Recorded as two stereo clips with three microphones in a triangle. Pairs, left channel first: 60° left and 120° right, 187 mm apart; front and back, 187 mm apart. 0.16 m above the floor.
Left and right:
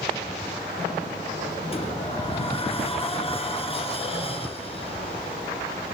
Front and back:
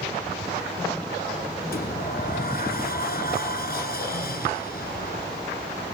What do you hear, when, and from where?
1.7 s a sliding door: 10° left, 1.9 m